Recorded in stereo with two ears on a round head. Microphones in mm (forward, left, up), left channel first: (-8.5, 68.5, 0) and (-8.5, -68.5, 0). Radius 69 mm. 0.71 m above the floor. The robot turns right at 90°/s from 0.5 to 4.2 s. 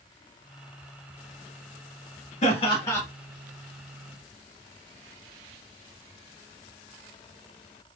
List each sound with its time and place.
2.4 s laughter: 110° left, 1.6 m; by 3.0 s 165° left, 1.6 m